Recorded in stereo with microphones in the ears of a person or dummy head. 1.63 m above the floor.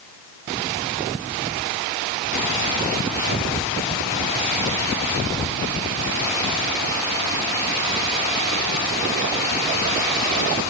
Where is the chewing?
No chewing in this recording.